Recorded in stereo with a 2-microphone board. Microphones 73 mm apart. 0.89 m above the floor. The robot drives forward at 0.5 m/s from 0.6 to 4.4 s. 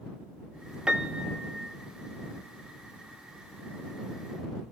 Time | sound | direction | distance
0.9 | a piano | 15° right (ahead or behind) | 1.0 m